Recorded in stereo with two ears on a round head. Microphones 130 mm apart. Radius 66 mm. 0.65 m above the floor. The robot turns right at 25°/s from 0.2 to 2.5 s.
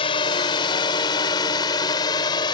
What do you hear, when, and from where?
0.0 s a drone: 40° left (ahead or behind); by 2.5 s 30° left (ahead or behind)